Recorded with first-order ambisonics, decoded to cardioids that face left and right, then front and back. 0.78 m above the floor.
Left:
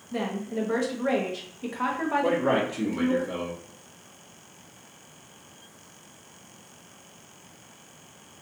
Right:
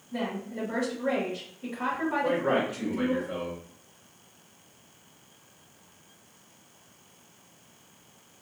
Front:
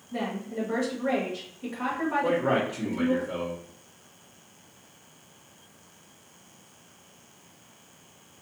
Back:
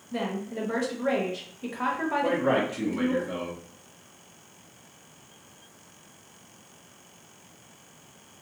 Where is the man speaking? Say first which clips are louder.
Left 1 dB, back 1 dB; 130° left, 1.0 m.